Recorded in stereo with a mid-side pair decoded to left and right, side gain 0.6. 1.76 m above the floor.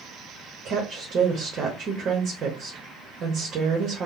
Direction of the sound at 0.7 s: 45° right.